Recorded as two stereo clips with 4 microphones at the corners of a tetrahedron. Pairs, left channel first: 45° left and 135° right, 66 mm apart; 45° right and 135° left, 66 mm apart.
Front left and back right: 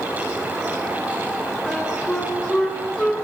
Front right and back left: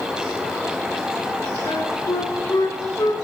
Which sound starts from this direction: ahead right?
A flute, at 1.7 s.